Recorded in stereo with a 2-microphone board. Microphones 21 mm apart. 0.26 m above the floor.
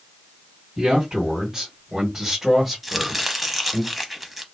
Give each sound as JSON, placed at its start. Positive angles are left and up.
{"t": 0.8, "sound": "a man speaking", "side_deg": -40, "distance_m": 1.9}
{"t": 2.8, "sound": "chopping", "side_deg": -5, "distance_m": 0.7}